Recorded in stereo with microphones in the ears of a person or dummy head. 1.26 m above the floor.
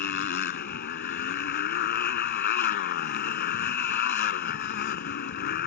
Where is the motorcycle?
55° left (ahead or behind).